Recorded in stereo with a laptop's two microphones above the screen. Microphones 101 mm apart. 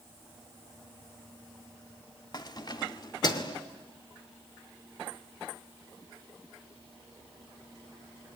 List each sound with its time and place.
2.3 s keys jangling: 40° left (ahead or behind), 1.4 m